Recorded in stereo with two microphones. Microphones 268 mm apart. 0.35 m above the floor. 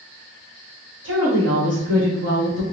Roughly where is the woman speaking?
Right.